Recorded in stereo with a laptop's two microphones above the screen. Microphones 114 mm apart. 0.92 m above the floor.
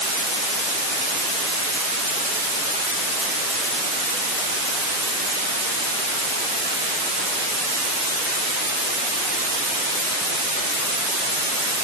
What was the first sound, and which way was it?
Only background noise.